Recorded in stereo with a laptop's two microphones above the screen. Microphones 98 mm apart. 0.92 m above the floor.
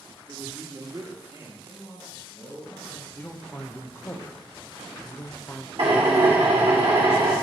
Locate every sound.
0.3 s a man speaking: 40° right (ahead or behind), 1.3 m
1.6 s a man speaking: 45° left (ahead or behind), 3 m
3.1 s a man speaking: 20° left (ahead or behind), 0.5 m
5.8 s a drill: 75° right (ahead or behind), 2.0 m